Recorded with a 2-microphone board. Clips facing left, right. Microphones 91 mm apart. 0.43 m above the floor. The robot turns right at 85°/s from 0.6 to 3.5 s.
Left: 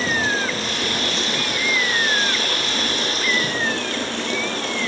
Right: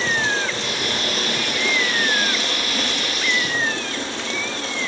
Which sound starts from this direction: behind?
Running water, at 0.0 s.